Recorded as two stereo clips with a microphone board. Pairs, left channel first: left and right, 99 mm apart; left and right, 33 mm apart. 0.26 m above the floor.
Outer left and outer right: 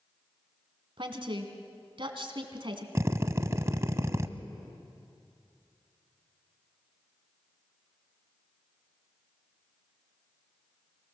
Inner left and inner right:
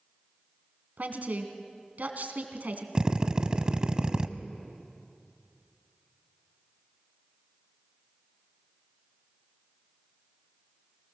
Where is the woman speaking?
60° right (ahead or behind), 2 m.